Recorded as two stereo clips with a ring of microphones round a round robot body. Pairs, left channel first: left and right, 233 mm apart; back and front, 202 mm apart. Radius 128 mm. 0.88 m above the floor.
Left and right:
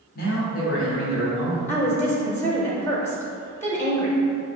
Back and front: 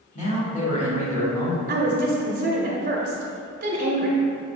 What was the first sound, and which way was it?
A man speaking, 130° left.